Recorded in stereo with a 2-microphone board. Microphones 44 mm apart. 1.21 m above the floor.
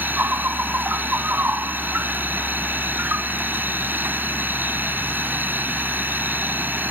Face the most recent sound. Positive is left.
turn(degrees=-50)  # may be behind; listen again after turning